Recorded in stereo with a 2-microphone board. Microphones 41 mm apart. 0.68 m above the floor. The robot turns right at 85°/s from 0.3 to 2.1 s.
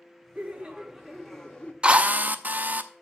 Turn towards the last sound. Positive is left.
turn(degrees=-40)  # may be behind; listen again after turning